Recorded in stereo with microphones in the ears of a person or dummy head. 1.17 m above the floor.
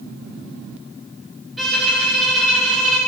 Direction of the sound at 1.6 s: Centre (ahead or behind).